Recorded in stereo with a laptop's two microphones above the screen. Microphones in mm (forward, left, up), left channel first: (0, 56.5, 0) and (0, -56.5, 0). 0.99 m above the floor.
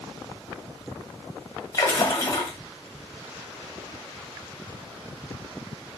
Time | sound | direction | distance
1.7 | a splash | 35° left (ahead or behind) | 1.1 m